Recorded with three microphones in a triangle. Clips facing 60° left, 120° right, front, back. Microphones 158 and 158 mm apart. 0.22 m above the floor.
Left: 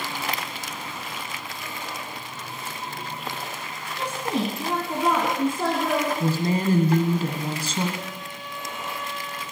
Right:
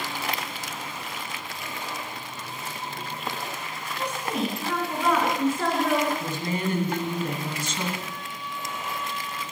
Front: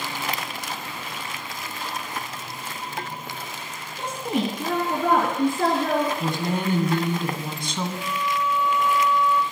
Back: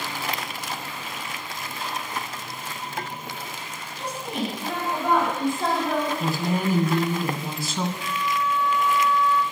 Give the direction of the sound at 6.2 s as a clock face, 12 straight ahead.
9 o'clock.